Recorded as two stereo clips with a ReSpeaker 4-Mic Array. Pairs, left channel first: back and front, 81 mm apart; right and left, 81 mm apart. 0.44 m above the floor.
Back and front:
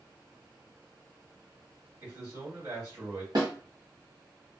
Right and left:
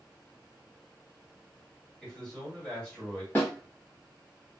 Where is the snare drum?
25° right, 1.5 m.